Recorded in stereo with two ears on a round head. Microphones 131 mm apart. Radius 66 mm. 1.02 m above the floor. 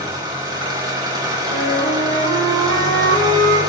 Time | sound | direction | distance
0.0 | an engine running | 30° right (ahead or behind) | 3 m
1.5 | a flute | 65° right (ahead or behind) | 6.5 m